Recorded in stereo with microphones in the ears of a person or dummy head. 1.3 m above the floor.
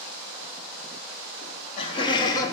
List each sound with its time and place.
1.4 s laughter: 40° left (ahead or behind), 1.3 m; by 2.5 s 20° left (ahead or behind), 0.8 m